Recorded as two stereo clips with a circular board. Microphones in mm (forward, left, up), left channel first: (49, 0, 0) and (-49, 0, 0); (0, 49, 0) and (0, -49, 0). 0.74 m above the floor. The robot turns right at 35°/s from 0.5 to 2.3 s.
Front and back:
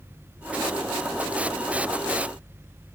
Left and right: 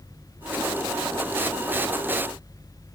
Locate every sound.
Only background noise.